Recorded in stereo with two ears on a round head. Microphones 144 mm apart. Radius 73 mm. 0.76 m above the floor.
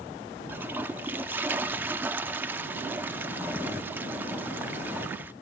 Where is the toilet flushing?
10° right (ahead or behind), 0.8 m.